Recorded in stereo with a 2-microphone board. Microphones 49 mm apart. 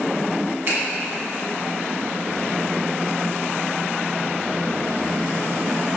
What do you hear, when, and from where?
0.7 s a finger snap: 50° right (ahead or behind), 1.6 m